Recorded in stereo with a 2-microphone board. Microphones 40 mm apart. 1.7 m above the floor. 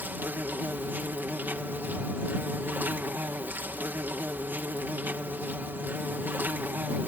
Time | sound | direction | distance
0.0 | an insect | 55° right (ahead or behind) | ?